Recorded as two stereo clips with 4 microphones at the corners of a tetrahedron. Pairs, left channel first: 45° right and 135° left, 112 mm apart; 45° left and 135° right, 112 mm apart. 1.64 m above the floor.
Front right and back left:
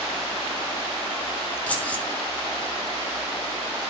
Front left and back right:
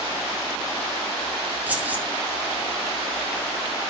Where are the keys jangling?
95° right, 0.8 m.